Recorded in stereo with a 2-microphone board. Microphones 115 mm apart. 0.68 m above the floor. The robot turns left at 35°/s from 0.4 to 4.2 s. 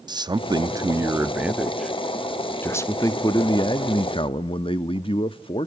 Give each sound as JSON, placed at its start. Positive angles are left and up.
{"t": 0.1, "sound": "a man speaking", "azimuth_deg": -130, "distance_m": 0.7}